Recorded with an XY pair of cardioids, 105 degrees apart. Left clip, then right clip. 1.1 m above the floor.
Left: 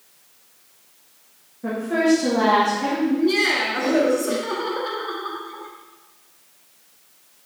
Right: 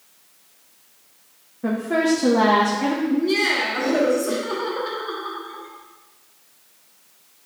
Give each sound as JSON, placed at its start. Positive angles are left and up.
{"t": 1.6, "sound": "a woman speaking", "azimuth_deg": -35, "distance_m": 1.3}
{"t": 3.1, "sound": "laughter", "azimuth_deg": 5, "distance_m": 1.8}